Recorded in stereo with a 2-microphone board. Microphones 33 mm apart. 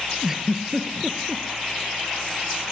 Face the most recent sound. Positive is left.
turn(degrees=-15)  # may be behind; listen again after turning